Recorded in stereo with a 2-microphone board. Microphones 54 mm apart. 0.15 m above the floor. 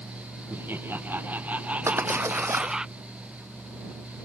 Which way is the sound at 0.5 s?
40° right (ahead or behind).